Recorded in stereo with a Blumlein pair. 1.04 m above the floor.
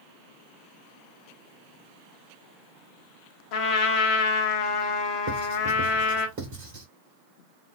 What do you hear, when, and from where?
3.5 s a trumpet: 45° left, 0.8 m
5.3 s writing: 50° right, 1.8 m